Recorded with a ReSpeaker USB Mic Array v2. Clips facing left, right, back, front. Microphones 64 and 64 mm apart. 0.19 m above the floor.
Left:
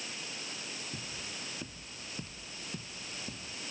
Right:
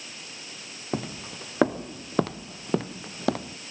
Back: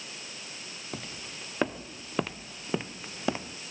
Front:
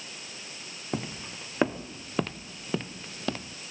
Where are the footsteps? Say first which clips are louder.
Right 11 dB, front 7 dB; 70° right; by 3.6 s 110° right.